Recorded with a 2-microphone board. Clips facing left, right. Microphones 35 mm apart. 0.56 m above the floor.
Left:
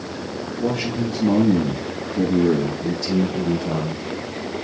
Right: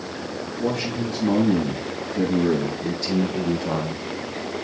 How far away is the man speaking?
About 6 m.